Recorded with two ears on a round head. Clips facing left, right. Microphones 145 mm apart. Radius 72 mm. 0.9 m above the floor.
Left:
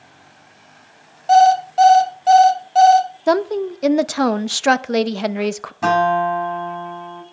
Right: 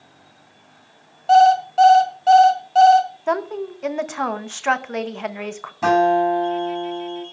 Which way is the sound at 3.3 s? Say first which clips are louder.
Left 6 dB; 45° left (ahead or behind).